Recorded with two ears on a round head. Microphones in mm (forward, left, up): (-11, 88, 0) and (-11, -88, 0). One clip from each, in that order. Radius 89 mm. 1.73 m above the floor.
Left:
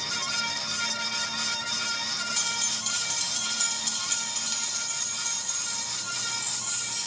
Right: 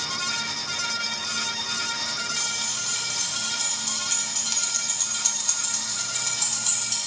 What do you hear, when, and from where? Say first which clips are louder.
2.4 s keys jangling: right 1 dB; 35° left (ahead or behind), 2.5 m; by 7.0 s 70° right (ahead or behind), 3 m